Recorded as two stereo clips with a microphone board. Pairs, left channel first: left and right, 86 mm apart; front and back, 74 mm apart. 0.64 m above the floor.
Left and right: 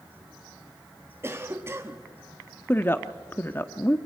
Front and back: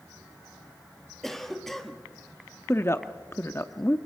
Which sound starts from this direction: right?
A cough, at 1.2 s.